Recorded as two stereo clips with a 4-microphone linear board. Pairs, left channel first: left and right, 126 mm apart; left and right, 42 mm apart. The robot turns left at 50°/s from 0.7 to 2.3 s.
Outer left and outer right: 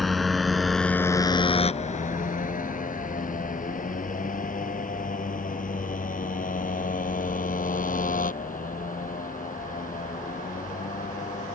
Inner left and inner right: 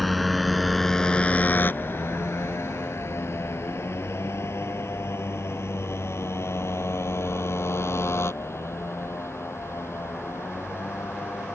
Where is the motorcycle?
Centre (ahead or behind); by 11.6 s 80° left.